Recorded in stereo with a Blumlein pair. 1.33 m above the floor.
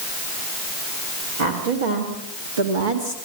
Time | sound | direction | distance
1.4 | a woman speaking | 65° right | 3 m